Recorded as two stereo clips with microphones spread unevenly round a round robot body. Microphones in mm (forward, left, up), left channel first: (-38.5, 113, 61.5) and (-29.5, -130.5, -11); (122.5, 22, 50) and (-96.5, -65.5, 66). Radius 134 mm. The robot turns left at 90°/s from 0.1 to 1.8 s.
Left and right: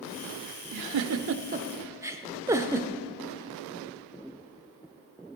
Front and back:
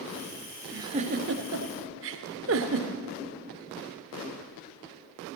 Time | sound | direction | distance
0.7 | a giggle | 80° right | 0.6 m